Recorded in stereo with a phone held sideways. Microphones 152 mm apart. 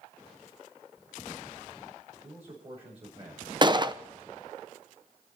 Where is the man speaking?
45° right (ahead or behind), 5.5 m.